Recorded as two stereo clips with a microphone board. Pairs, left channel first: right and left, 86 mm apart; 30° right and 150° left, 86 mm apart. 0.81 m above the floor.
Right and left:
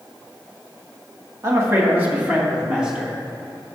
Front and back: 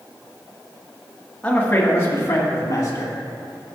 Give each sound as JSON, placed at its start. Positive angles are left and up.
{"t": 1.4, "sound": "a man speaking", "azimuth_deg": 40, "distance_m": 1.8}